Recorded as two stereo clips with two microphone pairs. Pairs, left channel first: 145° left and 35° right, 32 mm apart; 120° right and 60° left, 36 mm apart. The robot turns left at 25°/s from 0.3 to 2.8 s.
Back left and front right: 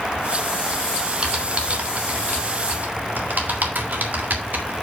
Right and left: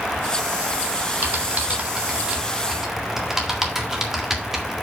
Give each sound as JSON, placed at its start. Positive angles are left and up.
{"t": 1.2, "sound": "typing on a keyboard", "azimuth_deg": 25, "distance_m": 1.7}